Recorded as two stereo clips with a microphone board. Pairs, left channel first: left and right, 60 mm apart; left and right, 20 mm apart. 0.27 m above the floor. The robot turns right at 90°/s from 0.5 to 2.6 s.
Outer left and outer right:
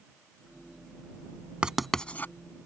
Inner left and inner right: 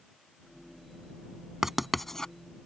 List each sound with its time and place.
1.6 s writing: 20° right (ahead or behind); by 2.3 s 40° left (ahead or behind)